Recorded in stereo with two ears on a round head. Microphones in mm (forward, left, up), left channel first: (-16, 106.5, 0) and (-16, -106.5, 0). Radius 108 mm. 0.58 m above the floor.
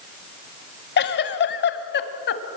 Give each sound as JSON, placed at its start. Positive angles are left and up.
{"t": 1.0, "sound": "a giggle", "side_deg": 45, "distance_m": 1.4}